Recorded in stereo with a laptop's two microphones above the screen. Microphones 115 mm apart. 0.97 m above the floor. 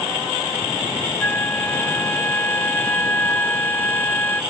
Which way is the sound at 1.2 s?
20° left (ahead or behind).